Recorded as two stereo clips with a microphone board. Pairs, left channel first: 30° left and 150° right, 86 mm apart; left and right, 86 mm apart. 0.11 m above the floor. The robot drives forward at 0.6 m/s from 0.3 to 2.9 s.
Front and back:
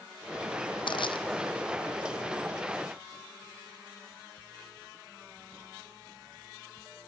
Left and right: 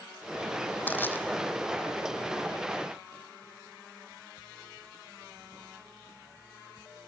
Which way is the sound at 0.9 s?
20° left.